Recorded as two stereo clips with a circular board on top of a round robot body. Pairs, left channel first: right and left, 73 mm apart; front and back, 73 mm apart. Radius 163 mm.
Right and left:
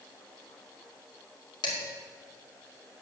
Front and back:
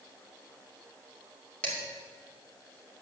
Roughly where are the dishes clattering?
Right.